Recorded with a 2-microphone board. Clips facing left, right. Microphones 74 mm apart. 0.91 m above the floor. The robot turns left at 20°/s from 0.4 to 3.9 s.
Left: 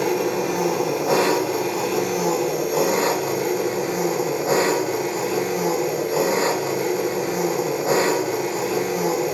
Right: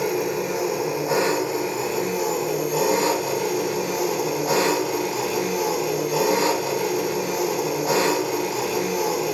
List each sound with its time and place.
0.0 s an engine running: 100° left, 4.5 m; by 9.3 s 30° left, 4.5 m